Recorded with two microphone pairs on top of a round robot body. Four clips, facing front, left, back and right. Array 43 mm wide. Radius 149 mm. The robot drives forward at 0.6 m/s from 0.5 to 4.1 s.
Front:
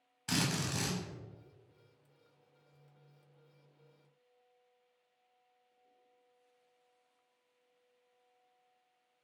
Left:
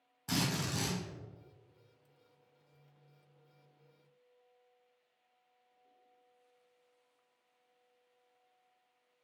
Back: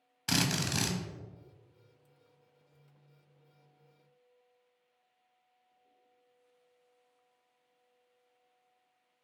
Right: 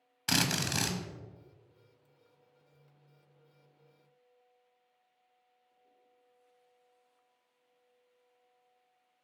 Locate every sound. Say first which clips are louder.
0.3 s a drill: right 4 dB, back 3 dB; 110° right, 0.8 m; by 1.0 s 130° right, 0.9 m